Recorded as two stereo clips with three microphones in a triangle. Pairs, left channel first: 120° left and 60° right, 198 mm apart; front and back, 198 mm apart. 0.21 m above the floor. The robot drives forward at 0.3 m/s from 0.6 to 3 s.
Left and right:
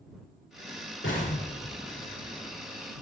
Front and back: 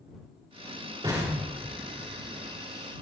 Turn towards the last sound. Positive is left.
turn(degrees=120)